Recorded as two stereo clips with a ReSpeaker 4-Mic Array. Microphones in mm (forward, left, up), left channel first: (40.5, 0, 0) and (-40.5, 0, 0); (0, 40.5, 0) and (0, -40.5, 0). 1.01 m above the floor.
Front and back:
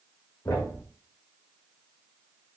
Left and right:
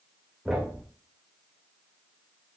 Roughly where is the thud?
Ahead.